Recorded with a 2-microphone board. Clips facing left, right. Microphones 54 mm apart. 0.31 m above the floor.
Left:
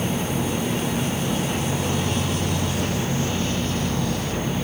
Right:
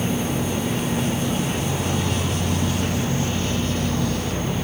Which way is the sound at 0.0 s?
5° left (ahead or behind).